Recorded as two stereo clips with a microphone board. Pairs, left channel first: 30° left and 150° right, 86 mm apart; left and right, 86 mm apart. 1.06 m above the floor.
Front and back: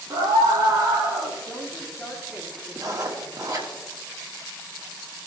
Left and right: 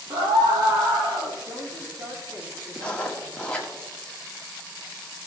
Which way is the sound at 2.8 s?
165° left.